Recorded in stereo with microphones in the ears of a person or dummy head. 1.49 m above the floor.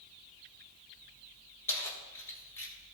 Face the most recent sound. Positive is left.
turn(degrees=15)  # may be behind; listen again after turning